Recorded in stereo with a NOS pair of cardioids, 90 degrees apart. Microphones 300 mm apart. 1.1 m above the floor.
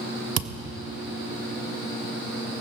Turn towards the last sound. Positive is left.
turn(degrees=-55)